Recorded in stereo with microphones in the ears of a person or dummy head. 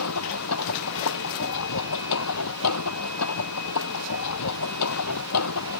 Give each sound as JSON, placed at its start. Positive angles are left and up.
{"t": 0.0, "sound": "a machine running", "side_deg": 90}